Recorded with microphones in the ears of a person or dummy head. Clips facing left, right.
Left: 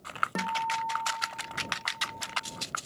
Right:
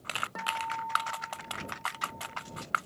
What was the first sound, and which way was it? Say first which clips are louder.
A guitar: left 5 dB; 50° left (ahead or behind).